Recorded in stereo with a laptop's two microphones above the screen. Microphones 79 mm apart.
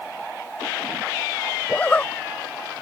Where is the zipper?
15° left (ahead or behind).